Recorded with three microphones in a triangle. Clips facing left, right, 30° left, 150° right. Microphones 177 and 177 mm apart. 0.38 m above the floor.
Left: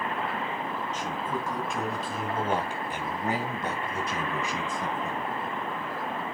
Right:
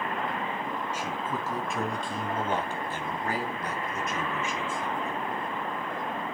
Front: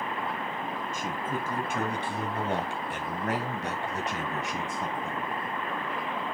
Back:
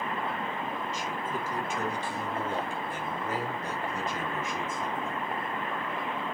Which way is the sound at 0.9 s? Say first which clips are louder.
Left 1 dB, front 1 dB; 10° right.